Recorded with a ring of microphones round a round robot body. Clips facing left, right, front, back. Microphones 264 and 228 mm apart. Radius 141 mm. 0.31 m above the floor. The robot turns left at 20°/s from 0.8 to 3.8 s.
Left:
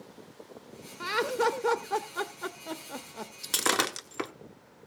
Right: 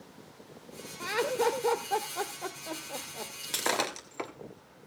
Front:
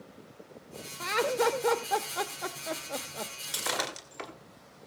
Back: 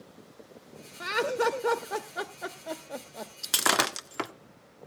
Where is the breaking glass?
165° left, 0.9 m; by 4.3 s 155° left, 0.9 m.